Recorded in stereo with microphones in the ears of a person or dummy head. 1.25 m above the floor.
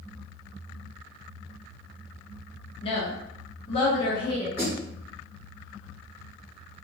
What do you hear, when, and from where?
2.8 s a woman speaking: 35° left (ahead or behind), 0.5 m; by 4.5 s 15° left (ahead or behind), 1.1 m
4.6 s a snare drum: 15° right (ahead or behind), 1.2 m